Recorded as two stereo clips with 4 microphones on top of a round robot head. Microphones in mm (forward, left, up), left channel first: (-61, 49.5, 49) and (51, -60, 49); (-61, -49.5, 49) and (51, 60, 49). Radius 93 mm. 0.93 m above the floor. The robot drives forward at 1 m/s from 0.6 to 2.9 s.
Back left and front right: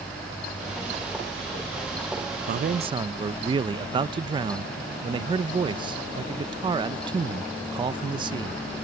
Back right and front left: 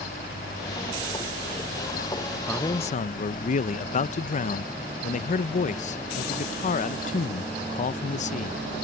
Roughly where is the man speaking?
Ahead right.